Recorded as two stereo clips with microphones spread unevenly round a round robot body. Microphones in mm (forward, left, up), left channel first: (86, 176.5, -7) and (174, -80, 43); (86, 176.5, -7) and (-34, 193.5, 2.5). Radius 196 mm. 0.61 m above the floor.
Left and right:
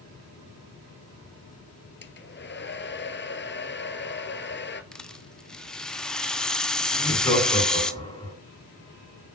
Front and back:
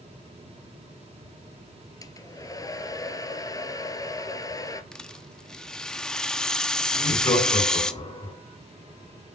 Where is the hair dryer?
55° left, 2 m.